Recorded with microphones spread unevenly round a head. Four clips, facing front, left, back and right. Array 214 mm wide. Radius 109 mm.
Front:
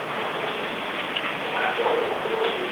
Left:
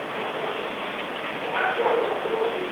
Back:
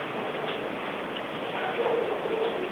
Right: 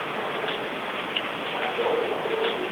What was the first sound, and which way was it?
Only background noise.